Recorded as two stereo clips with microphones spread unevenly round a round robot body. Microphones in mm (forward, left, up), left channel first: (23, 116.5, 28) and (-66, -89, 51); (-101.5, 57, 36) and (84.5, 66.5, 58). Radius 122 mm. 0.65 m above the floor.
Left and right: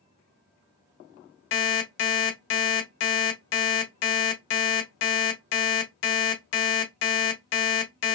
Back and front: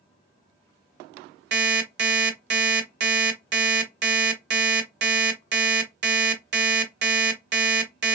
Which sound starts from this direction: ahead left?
An alarm clock, at 1.5 s.